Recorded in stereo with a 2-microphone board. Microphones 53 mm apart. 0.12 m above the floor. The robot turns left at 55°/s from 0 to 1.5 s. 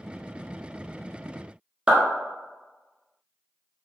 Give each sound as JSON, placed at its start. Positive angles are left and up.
{"t": 1.9, "sound": "a clap", "side_deg": -20, "distance_m": 1.1}